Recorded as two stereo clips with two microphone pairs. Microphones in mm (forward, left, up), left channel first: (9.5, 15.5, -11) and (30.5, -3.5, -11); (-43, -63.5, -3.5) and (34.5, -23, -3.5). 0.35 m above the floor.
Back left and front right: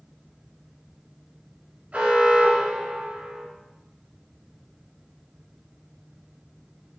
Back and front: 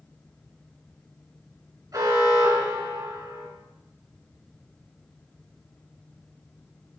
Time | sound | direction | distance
1.9 | an alarm | 10° right | 3 m